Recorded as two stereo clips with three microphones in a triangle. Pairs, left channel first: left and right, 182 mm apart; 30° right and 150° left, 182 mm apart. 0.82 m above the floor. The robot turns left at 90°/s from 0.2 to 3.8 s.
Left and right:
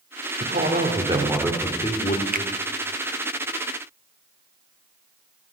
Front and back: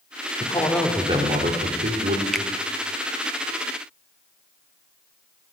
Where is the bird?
No bird in this recording.